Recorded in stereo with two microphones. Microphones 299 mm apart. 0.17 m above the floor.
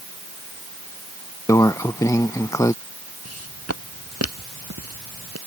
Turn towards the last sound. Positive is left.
turn(degrees=-50)  # may be behind; listen again after turning